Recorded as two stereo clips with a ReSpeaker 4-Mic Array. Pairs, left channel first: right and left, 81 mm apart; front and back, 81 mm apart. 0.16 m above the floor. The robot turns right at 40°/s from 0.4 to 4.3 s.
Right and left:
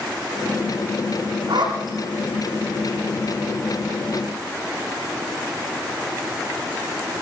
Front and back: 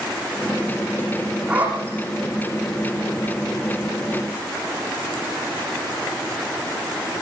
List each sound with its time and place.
1.5 s a zipper: 105° left, 10 m; by 2.0 s 120° left, 10 m